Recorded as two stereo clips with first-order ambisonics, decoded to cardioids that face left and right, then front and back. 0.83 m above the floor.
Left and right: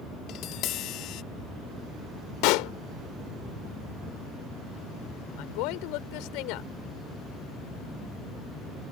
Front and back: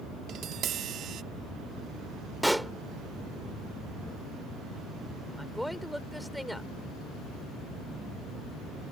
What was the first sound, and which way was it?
Tapping, 130° left.